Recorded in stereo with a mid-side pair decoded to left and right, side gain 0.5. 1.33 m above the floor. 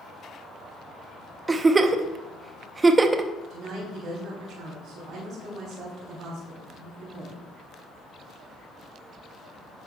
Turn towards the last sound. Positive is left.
turn(degrees=-65)